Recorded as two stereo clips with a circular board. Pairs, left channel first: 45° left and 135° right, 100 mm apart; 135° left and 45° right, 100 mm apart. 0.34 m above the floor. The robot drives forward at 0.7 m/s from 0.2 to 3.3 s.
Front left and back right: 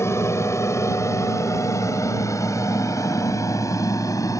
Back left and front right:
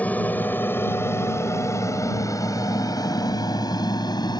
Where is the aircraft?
75° left; by 4.4 s 95° left.